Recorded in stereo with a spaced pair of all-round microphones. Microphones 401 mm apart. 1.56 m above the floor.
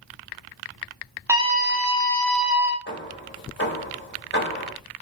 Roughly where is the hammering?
Left.